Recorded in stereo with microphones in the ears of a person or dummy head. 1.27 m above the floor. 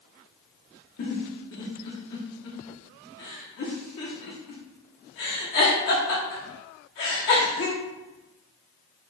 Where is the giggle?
55° left (ahead or behind), 1.1 m.